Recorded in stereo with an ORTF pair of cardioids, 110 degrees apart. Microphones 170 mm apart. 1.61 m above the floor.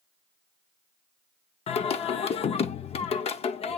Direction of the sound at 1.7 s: 40° left.